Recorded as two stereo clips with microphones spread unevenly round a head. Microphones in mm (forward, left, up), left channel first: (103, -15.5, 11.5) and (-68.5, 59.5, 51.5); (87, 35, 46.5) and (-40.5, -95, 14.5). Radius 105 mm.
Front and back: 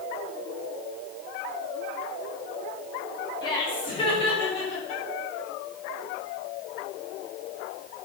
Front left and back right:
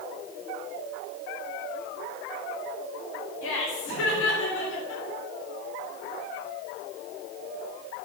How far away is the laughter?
About 5.5 m.